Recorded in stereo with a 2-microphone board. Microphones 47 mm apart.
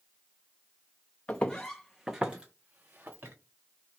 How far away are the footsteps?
About 0.7 m.